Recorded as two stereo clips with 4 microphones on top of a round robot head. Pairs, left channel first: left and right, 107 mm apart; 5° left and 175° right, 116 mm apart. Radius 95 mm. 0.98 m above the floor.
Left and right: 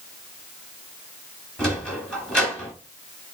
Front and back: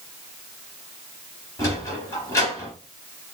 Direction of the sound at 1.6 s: 20° left.